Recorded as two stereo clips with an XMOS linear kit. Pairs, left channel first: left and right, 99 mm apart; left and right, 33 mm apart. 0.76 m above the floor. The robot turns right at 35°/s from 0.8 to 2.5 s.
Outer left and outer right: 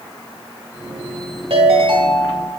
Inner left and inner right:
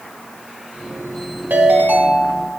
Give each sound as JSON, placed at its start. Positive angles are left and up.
{"t": 1.5, "sound": "a ringtone", "azimuth_deg": -80, "distance_m": 1.4}